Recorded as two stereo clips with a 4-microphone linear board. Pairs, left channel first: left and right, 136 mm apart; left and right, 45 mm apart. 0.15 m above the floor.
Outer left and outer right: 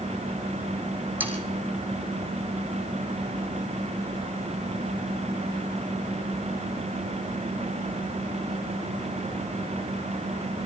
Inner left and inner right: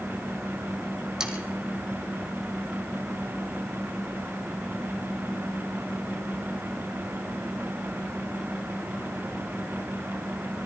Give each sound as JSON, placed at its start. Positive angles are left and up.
{"t": 1.2, "sound": "sawing", "side_deg": -10, "distance_m": 3.0}